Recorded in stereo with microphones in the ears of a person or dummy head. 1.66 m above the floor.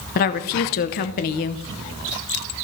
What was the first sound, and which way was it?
A woman speaking, 50° left (ahead or behind).